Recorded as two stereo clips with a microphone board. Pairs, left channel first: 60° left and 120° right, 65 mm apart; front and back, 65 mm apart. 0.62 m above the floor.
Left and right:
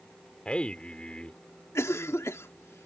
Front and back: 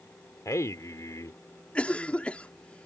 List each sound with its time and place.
0.5 s a man speaking: 10° right
1.8 s a cough: 60° left